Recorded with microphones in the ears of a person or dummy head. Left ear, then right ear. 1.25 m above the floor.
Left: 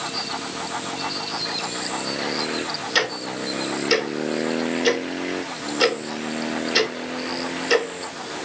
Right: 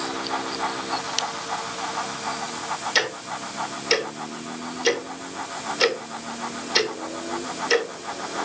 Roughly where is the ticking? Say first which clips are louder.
Left 2 dB; centre.